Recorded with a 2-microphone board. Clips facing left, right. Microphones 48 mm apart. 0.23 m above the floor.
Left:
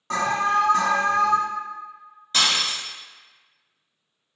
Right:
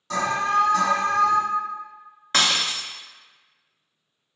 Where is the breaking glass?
55° right (ahead or behind), 0.7 m.